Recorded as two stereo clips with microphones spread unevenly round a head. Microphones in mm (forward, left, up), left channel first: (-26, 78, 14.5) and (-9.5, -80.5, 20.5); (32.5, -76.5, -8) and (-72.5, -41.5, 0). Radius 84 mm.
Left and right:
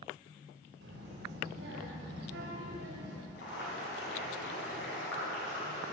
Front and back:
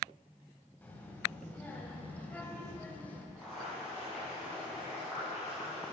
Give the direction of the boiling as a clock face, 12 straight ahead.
10 o'clock.